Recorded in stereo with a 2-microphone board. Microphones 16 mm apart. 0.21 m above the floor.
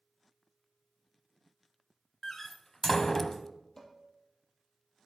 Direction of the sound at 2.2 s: 20° left (ahead or behind).